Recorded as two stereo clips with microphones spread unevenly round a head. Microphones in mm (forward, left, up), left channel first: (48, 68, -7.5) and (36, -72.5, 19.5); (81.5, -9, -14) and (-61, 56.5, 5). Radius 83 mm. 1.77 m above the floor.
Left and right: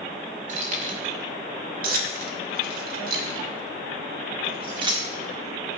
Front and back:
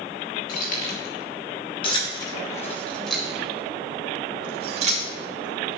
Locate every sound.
0.5 s keys jangling: 70° right, 3.5 m; by 5.8 s 165° right, 3 m